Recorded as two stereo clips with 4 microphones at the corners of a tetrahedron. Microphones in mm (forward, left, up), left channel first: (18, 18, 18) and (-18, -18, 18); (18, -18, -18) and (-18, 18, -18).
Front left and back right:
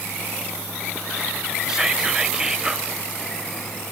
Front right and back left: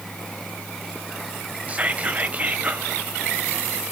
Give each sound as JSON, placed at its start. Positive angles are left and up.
{"t": 1.7, "sound": "whispering", "azimuth_deg": 160, "distance_m": 1.0}